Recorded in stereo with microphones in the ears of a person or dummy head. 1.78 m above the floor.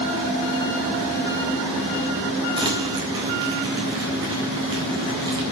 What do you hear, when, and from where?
2.6 s crumpling: 20° right (ahead or behind), 3.5 m